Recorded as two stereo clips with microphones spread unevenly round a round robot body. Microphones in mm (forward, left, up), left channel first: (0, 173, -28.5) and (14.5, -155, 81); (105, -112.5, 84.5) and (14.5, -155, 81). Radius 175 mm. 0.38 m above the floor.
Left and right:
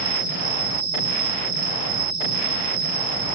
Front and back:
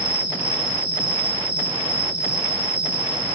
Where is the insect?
120° right, 4 m.